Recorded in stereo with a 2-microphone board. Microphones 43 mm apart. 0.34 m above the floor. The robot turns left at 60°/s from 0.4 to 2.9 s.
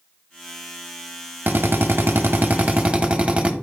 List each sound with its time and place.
1.5 s a drill: 65° right, 0.8 m; by 3.5 s 150° right, 0.8 m